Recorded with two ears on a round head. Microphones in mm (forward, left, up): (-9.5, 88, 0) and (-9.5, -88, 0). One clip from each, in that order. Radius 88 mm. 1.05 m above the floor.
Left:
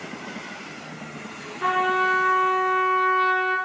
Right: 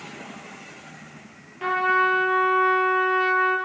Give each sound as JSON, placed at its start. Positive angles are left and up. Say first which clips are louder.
{"t": 1.6, "sound": "a trumpet", "louder": "right 1 dB", "side_deg": -15, "distance_m": 4.0}